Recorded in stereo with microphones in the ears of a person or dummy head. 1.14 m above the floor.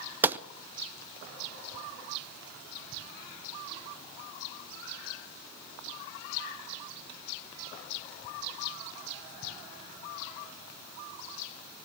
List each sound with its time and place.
0.2 s a gunshot: 15° right (ahead or behind), 0.6 m